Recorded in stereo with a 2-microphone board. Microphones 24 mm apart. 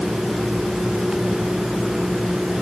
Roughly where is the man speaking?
I don't hear a man speaking.